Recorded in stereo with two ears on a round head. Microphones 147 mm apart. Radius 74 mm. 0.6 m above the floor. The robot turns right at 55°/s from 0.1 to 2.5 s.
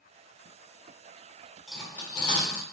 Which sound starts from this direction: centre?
Cutlery clinking, at 1.7 s.